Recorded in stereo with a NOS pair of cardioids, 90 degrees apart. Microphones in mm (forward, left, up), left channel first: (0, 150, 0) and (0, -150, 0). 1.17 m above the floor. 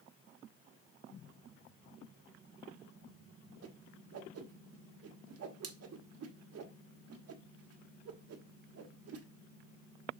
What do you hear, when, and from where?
3.6 s a whoosh: 55° right, 1.4 m